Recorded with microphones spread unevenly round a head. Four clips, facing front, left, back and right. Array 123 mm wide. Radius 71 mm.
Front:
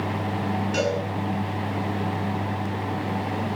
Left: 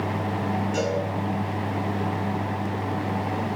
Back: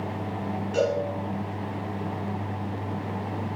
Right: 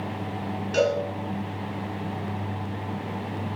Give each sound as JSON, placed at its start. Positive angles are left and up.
{"t": 0.7, "sound": "a cowbell", "azimuth_deg": -55, "distance_m": 8.0}